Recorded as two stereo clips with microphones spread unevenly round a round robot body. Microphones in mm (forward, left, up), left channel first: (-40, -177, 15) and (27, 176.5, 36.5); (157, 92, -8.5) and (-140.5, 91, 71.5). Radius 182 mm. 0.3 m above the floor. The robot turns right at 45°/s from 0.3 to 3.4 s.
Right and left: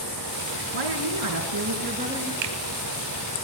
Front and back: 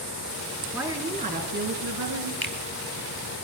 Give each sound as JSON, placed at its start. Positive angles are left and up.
{"t": 0.7, "sound": "a woman speaking", "azimuth_deg": 95, "distance_m": 4.0}
{"t": 2.4, "sound": "a finger snap", "azimuth_deg": 75, "distance_m": 2.5}